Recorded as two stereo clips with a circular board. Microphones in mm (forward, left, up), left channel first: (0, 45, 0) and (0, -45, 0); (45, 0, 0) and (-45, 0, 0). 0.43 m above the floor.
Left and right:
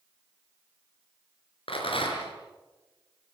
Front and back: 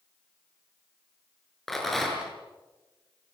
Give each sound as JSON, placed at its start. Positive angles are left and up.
{"t": 1.7, "sound": "a rattle", "azimuth_deg": 90, "distance_m": 5.5}